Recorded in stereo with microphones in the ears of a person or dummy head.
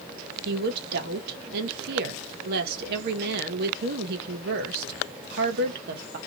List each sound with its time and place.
0.5 s a woman speaking: 55° right (ahead or behind), 0.9 m